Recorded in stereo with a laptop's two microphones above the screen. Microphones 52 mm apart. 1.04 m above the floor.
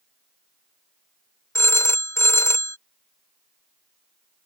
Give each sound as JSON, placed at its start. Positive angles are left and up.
{"t": 1.6, "sound": "a phone ringing", "side_deg": 60}